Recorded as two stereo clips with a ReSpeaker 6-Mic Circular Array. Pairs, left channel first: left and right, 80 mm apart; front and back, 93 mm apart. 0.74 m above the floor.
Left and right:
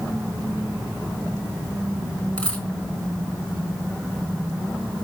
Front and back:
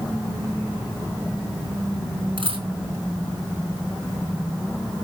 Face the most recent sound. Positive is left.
turn(degrees=170)